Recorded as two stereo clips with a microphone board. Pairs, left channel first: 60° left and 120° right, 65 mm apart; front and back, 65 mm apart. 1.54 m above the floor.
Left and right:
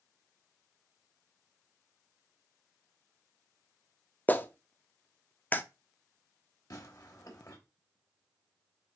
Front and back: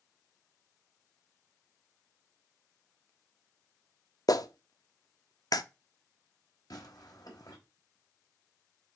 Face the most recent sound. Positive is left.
turn(degrees=30)